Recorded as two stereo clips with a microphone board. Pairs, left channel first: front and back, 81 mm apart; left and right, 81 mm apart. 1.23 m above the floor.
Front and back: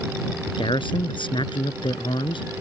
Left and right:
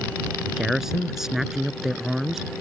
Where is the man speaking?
5° right.